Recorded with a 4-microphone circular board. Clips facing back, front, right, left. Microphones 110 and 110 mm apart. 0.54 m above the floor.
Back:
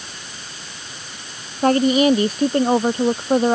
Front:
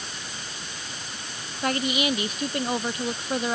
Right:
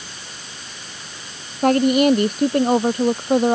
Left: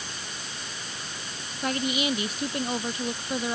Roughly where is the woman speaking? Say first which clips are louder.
Back 11 dB, right 13 dB; behind right.